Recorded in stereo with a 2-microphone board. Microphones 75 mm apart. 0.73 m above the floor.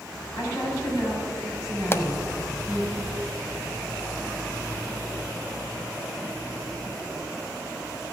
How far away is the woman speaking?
About 5.5 m.